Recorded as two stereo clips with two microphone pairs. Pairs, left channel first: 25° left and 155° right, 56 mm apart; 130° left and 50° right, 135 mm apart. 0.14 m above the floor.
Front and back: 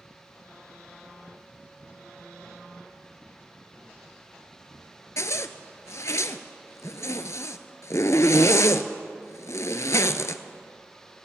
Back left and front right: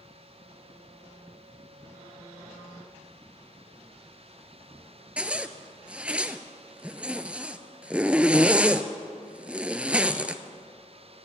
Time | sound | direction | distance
5.2 | a zipper | 30° left | 0.6 m